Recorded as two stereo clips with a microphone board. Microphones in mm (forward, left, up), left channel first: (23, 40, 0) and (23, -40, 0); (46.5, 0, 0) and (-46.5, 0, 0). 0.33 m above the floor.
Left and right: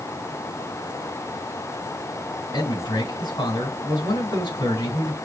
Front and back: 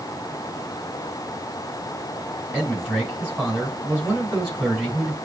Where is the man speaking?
100° left, 4.5 m.